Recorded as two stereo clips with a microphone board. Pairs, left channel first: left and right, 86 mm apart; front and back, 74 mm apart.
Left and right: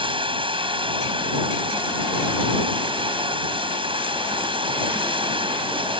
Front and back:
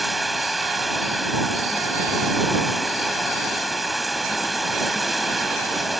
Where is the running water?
90° right.